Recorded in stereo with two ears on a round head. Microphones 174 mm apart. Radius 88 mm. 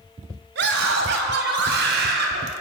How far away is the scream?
About 3.5 m.